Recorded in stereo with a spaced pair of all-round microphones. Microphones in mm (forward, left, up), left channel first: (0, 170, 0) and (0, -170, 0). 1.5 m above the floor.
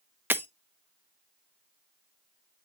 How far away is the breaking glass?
About 0.7 m.